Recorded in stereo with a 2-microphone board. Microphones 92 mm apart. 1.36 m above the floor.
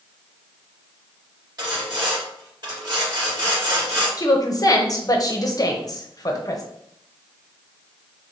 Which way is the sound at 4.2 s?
40° left (ahead or behind).